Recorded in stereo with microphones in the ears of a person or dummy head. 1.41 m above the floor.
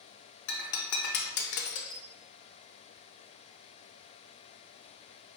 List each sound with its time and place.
0.5 s breaking glass: 60° left (ahead or behind), 0.9 m